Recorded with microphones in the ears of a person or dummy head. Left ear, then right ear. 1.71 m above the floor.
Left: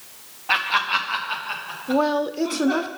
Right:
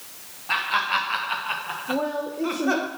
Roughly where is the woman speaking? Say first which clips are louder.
Left 7 dB; left.